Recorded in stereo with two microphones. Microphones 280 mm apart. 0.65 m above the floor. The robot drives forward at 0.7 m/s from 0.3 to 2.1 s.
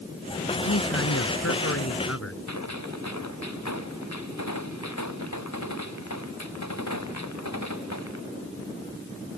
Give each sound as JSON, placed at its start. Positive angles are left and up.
{"t": 0.6, "sound": "a man speaking", "side_deg": 55}
{"t": 2.5, "sound": "a gunshot", "side_deg": 75}